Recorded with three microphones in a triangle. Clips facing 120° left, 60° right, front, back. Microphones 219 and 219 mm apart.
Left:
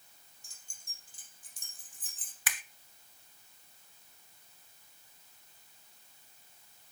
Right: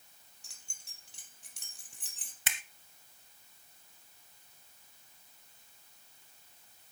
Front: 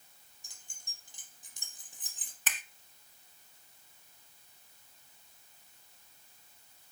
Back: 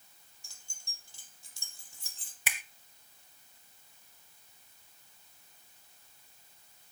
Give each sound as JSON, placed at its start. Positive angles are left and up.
{"t": 0.4, "sound": "keys jangling", "azimuth_deg": -70, "distance_m": 3.5}
{"t": 2.5, "sound": "a finger snap", "azimuth_deg": -105, "distance_m": 1.3}